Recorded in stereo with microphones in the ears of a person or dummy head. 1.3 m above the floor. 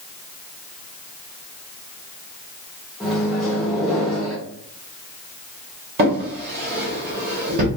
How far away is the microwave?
About 0.8 m.